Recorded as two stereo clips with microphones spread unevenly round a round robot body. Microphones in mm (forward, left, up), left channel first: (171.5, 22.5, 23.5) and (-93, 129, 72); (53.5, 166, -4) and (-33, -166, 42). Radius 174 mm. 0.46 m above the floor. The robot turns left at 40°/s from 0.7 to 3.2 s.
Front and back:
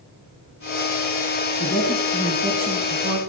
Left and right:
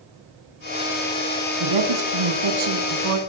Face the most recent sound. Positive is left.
turn(degrees=-150)